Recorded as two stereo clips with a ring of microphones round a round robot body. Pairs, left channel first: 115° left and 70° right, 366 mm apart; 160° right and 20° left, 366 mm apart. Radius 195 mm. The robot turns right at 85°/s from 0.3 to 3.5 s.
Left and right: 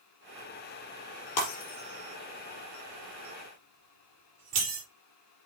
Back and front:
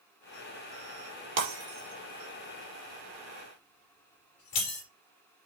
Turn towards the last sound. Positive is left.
turn(degrees=-120)